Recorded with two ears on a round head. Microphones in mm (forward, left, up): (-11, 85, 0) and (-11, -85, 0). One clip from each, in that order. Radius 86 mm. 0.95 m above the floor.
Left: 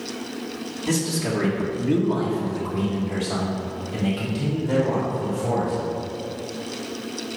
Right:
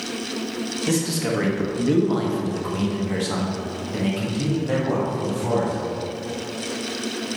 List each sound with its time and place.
0.9 s a man speaking: 15° right (ahead or behind), 1.7 m; by 5.7 s 45° right (ahead or behind), 3 m